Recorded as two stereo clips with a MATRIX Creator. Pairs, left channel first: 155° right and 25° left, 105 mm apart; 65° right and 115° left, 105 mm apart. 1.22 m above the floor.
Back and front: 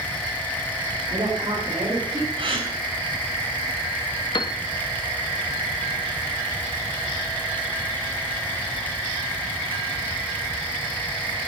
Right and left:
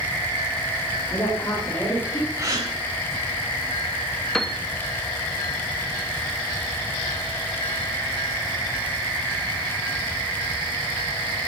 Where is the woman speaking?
5° right, 4 m; by 2.3 s 10° left, 4.5 m.